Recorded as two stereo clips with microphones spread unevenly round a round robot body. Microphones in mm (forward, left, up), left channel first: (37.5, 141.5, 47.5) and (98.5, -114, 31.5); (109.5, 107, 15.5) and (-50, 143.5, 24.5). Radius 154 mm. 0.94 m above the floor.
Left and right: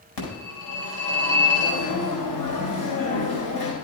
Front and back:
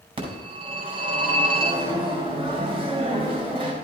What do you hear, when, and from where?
0.2 s a phone ringing: 110° left, 4.5 m